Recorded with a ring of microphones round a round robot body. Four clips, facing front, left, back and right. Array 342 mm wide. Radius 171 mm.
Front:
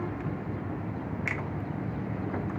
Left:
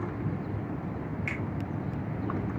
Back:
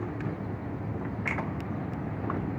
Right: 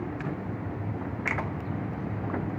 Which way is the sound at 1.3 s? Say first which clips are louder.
Right 5 dB, back 5 dB; 70° right.